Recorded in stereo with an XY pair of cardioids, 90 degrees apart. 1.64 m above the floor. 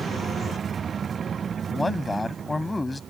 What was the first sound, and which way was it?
A man speaking, 15° left.